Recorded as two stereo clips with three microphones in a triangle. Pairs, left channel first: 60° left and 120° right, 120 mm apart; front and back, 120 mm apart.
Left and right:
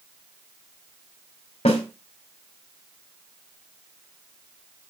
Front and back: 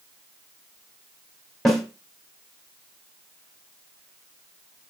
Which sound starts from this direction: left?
A snare drum, at 1.6 s.